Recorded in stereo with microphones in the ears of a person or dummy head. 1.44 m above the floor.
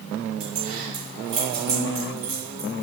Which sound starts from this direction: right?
Keys jangling, at 0.4 s.